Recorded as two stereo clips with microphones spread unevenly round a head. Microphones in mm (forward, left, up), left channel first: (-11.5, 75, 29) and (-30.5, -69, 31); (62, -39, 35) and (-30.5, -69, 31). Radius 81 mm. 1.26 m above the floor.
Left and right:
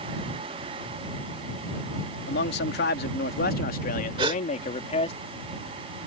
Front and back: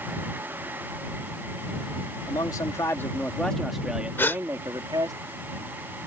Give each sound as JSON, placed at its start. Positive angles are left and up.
{"t": 2.3, "sound": "a man speaking", "azimuth_deg": 80}
{"t": 4.2, "sound": "a gasp", "azimuth_deg": -45}